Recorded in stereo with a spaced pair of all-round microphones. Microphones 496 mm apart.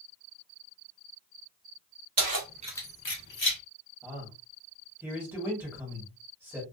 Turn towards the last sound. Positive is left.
turn(degrees=-5)  # may be behind; listen again after turning